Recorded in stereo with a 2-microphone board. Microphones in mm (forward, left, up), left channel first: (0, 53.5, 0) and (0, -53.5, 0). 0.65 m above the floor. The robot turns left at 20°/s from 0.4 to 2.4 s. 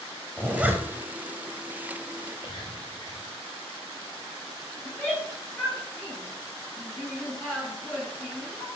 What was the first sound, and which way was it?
A zipper, 10° right (ahead or behind).